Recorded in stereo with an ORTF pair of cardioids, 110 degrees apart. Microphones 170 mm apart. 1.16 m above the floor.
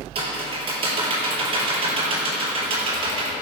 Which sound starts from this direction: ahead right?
Typing on a keyboard, at 0.1 s.